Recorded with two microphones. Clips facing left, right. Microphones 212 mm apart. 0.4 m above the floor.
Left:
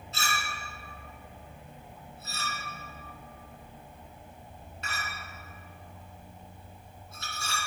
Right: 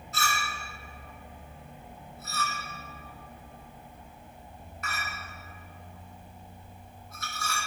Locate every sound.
0.1 s a clink: 25° left (ahead or behind), 2.5 m